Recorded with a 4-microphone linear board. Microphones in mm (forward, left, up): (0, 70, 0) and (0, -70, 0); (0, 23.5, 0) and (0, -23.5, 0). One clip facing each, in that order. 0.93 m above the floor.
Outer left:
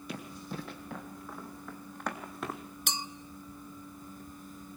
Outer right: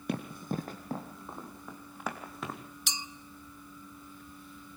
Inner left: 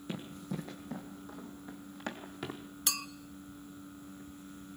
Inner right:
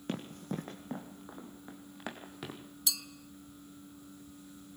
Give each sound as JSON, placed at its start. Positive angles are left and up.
{"t": 0.1, "sound": "running footsteps", "side_deg": -60, "distance_m": 2.5}
{"t": 2.9, "sound": "a clink", "side_deg": 50, "distance_m": 0.7}